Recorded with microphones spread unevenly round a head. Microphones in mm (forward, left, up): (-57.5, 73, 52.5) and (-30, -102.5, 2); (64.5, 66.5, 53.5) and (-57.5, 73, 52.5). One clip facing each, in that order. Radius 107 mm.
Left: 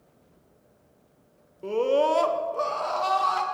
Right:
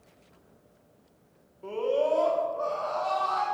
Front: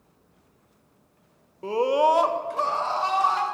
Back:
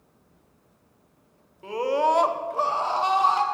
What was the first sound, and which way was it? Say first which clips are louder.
A scream: left 4 dB, front 2 dB; 40° left.